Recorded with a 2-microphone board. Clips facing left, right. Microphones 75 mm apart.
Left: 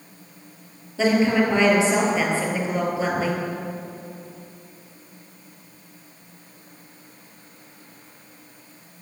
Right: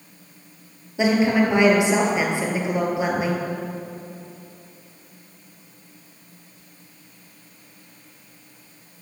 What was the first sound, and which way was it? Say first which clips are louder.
A woman speaking: even; 15° right (ahead or behind).